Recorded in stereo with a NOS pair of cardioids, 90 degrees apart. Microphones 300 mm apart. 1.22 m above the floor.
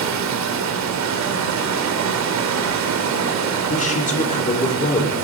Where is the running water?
65° right, 3 m.